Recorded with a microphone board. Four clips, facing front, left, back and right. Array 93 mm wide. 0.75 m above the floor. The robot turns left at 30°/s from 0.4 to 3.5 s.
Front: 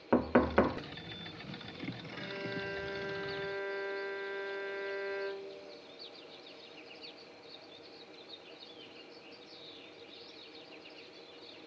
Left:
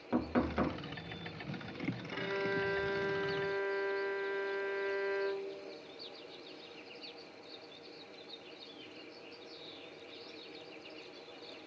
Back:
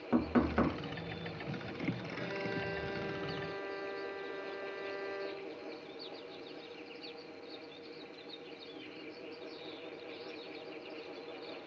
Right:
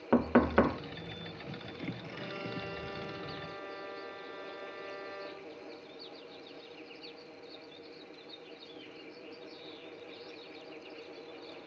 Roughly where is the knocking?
Ahead right.